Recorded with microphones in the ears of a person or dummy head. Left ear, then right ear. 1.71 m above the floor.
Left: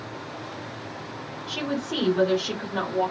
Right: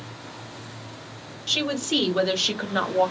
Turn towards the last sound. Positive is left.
turn(degrees=-40)  # may be behind; listen again after turning